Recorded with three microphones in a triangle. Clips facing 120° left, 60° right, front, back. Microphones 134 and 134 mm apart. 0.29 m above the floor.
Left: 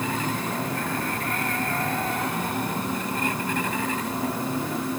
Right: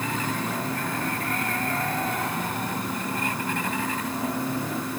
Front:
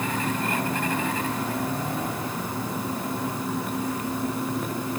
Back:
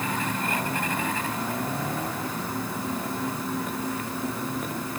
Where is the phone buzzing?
I don't hear a phone buzzing.